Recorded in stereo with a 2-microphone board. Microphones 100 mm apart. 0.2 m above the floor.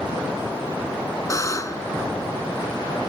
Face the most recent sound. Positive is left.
turn(degrees=35)  # may be behind; listen again after turning